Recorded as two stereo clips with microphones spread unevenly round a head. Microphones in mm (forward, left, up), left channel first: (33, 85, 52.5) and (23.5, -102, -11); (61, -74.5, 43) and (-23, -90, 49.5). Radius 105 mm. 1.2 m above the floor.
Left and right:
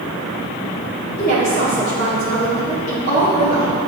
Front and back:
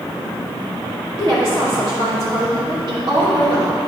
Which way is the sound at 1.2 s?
140° left.